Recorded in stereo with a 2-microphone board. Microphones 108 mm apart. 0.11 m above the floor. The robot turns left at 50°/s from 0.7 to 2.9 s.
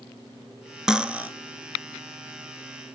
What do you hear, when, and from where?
0.9 s cutlery clinking: 5° right (ahead or behind), 0.8 m; by 1.3 s 15° right (ahead or behind), 0.8 m